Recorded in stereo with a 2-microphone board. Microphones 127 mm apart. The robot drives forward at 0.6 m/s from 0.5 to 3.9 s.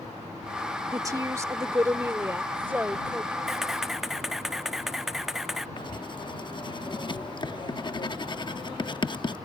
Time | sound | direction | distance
0.9 | a woman speaking | 30° right (ahead or behind) | ?
3.5 | a camera shutter | 5° right (ahead or behind) | ?
5.8 | writing | 40° left (ahead or behind) | ?